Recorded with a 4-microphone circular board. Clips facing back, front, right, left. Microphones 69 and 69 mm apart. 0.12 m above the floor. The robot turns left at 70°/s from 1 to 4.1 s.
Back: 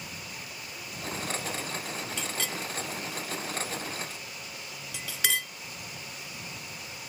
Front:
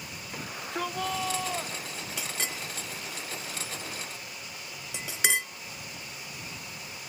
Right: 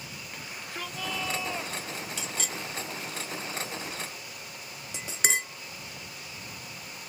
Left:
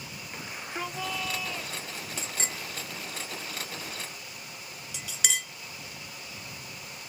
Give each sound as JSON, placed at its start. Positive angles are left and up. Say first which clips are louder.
{"t": 0.3, "sound": "a shout", "louder": "front 8 dB, left 3 dB", "azimuth_deg": 15}
{"t": 2.2, "sound": "a clink", "louder": "front 1 dB, right 1 dB", "azimuth_deg": 75}